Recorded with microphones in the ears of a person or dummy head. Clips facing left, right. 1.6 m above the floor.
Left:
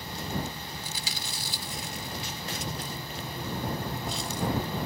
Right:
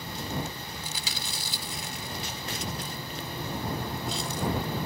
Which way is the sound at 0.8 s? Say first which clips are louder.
Right 1 dB; 70° right (ahead or behind).